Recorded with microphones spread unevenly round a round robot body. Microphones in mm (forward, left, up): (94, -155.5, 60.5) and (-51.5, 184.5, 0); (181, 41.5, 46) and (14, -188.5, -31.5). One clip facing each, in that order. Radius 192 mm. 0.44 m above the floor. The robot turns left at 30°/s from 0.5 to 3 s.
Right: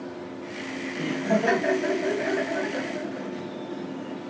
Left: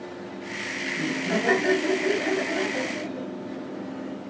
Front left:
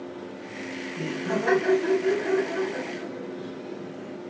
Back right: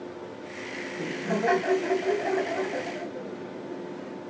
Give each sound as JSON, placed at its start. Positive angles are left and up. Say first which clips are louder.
{"t": 0.9, "sound": "laughter", "louder": "right 1 dB, front left 1 dB", "azimuth_deg": 30, "distance_m": 2.0}